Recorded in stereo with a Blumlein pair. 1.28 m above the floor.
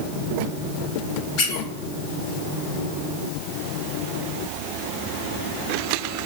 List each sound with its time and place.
1.4 s a squeak: 40° left, 1.7 m